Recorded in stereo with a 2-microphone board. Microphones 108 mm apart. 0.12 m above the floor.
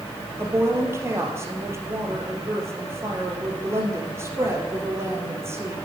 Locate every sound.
0.4 s a woman speaking: 25° right (ahead or behind), 2.5 m